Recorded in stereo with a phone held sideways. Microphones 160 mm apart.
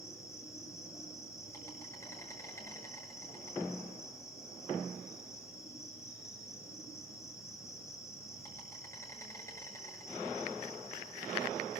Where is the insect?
20° left (ahead or behind), 7.5 m.